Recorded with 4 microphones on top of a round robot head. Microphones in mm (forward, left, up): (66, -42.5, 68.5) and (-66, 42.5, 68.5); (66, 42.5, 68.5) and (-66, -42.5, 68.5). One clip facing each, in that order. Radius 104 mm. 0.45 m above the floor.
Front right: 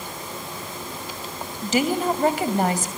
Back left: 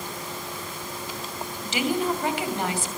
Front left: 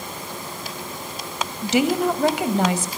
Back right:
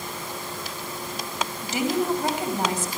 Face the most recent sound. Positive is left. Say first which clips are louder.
# front right 4 dB, front left 5 dB
turn(degrees=15)